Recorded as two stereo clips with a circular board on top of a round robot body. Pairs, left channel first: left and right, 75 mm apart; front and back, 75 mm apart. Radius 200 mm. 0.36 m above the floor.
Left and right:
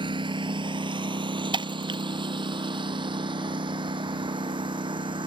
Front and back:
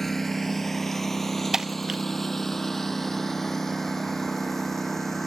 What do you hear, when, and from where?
0.0 s a lawn mower: 85° right
1.5 s breaking glass: 95° right